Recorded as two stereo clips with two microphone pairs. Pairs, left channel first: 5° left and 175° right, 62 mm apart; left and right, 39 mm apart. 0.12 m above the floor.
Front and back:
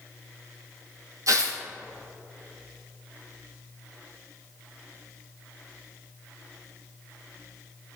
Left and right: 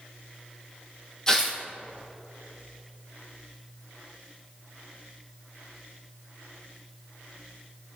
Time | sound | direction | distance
1.3 | tearing paper | 160° left | 2.0 m